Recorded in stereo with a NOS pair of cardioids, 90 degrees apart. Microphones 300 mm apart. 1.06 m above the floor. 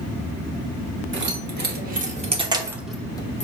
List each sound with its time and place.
1.1 s keys jangling: 35° right, 1.4 m; by 3.5 s 25° left, 0.6 m